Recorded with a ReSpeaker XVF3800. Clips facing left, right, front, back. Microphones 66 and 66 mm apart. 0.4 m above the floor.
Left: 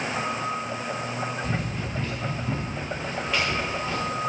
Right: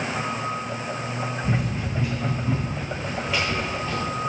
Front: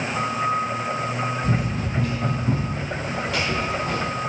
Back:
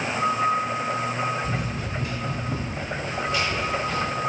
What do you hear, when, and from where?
1.4 s running footsteps: 20° right, 4 m; by 4.1 s 5° left, 5.5 m